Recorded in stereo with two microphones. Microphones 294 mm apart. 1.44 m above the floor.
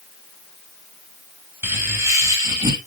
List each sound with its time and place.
1.6 s laughter: 10° right (ahead or behind), 7.5 m; by 2.8 s 15° right (ahead or behind), 8.5 m